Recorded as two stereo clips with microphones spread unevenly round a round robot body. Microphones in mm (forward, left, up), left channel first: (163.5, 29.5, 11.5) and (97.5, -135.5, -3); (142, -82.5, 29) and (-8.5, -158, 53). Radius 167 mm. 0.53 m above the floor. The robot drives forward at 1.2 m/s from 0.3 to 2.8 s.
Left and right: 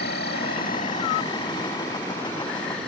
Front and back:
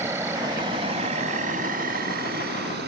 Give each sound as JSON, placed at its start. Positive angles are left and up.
{"t": 0.0, "sound": "an insect", "azimuth_deg": 125}